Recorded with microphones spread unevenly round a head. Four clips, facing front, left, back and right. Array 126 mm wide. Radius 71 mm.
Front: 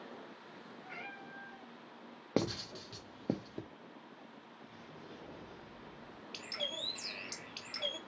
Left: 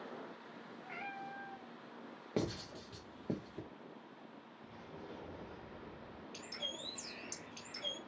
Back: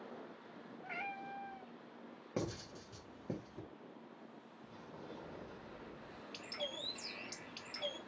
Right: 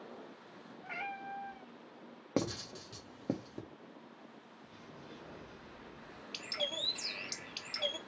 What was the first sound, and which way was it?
A cat meowing, 130° right.